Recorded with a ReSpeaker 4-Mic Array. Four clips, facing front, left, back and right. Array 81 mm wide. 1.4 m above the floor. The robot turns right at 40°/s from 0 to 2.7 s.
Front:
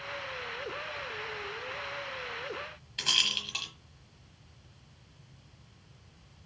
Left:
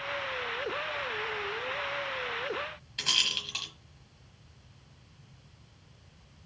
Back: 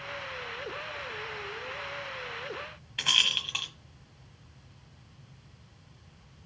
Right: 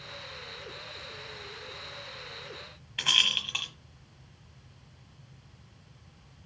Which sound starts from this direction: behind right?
A rattle, at 3.0 s.